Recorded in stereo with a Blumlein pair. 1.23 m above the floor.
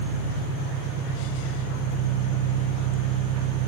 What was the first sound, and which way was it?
An engine running, 35° right.